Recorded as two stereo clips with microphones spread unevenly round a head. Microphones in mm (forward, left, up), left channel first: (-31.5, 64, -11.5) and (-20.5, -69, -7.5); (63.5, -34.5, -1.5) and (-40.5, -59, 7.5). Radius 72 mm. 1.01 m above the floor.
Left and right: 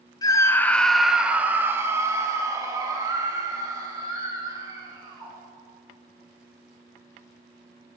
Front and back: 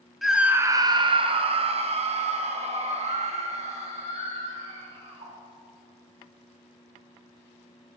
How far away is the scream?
About 0.8 m.